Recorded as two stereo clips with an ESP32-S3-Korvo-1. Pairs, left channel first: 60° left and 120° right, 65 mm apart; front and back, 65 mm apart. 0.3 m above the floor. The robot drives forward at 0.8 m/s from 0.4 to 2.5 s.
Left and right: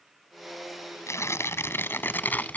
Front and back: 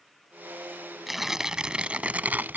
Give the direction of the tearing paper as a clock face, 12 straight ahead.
9 o'clock.